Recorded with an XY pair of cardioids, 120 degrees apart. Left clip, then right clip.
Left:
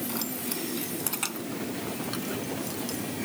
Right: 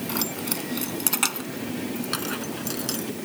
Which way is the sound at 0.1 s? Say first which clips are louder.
Right 5 dB; 35° right.